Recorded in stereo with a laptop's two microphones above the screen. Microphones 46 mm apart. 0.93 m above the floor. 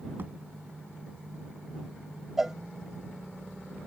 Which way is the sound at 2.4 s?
10° right (ahead or behind).